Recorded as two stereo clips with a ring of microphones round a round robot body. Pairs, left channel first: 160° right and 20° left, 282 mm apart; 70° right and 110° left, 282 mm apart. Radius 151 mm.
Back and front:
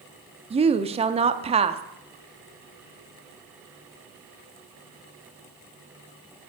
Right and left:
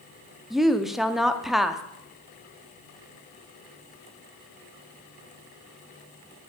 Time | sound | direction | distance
0.5 | a woman speaking | 25° left | 0.6 m